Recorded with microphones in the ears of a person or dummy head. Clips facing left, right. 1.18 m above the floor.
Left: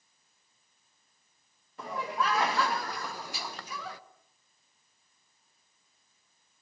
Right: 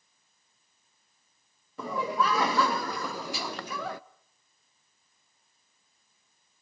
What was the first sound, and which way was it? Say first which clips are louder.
Laughter: right 4 dB; 70° right (ahead or behind).